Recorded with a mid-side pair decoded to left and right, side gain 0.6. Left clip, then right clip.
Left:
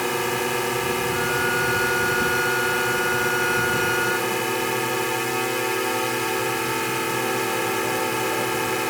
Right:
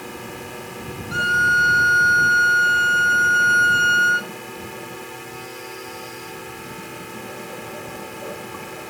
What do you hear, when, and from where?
0.0 s a drone: 55° left
1.1 s a violin: 45° right